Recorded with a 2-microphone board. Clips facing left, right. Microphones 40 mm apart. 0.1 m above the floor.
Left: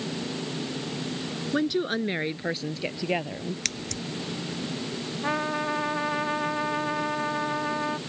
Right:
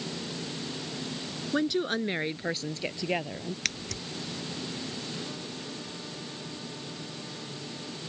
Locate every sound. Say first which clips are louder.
1.5 s a woman speaking: left 2 dB; 5° left (ahead or behind)
3.6 s scissors: left 1 dB; 10° right (ahead or behind)
5.2 s a trumpet: left 12 dB; 80° left